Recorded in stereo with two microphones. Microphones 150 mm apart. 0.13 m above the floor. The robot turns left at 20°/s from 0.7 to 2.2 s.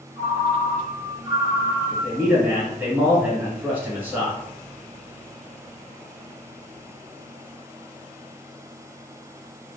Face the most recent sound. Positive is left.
turn(degrees=-15)  # may be behind; listen again after turning